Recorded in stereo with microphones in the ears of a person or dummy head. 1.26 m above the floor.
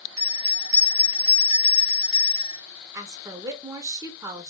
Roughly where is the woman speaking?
Centre.